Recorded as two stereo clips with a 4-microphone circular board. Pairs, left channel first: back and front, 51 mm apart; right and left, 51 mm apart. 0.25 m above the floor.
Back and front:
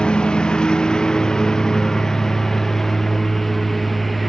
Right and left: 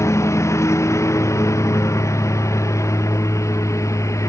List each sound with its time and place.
0.0 s a lawn mower: 110° right; by 4.3 s 95° right